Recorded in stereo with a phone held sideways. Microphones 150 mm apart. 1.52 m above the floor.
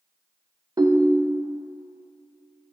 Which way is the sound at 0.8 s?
25° right (ahead or behind).